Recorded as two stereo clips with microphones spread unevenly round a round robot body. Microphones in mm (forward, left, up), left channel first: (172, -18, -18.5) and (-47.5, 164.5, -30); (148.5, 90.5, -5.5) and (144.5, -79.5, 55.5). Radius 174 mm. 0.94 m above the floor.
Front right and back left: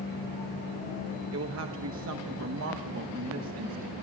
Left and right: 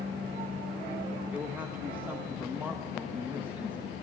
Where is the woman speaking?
170° left, 0.9 m.